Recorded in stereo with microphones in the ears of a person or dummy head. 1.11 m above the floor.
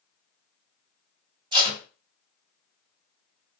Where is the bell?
I don't hear a bell.